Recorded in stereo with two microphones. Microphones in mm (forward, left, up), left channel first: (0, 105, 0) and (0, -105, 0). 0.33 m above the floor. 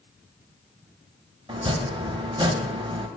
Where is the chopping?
25° right (ahead or behind), 0.8 m.